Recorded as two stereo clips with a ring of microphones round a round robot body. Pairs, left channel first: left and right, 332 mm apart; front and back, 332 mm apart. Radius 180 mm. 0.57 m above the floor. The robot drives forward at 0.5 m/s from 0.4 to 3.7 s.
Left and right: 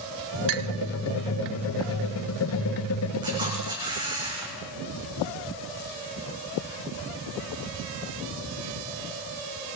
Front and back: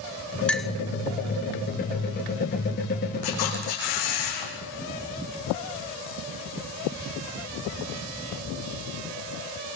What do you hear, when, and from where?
0.5 s a clink: 85° right, 1.4 m; by 0.7 s 90° right, 1.4 m
3.2 s a camera shutter: 10° right, 8.5 m